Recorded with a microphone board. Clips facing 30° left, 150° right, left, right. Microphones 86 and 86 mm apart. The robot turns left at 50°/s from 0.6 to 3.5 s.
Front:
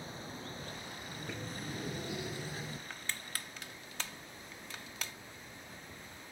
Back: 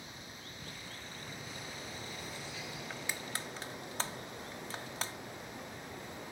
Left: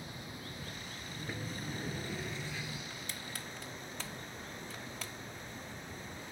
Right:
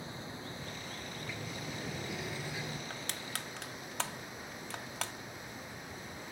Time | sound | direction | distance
0.0 | running water | 25° right | ?
1.1 | a sliding door | 55° left | ?
2.9 | crushing | 65° right | ?